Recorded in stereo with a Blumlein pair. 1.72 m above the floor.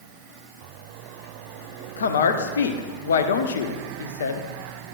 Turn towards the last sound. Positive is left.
turn(degrees=65)